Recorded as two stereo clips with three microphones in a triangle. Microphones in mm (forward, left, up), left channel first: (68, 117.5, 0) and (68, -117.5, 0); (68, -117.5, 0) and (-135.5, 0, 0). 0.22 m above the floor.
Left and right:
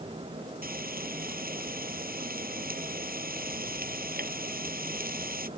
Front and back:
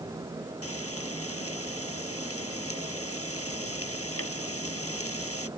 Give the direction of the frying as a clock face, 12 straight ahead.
1 o'clock.